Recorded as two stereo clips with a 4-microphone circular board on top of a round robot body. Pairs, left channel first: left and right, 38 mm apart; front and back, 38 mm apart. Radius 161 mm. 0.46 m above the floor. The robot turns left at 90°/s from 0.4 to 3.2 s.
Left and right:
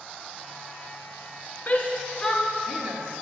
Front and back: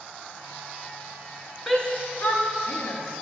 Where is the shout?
70° left, 1.5 m; by 3.2 s 70° right, 1.5 m.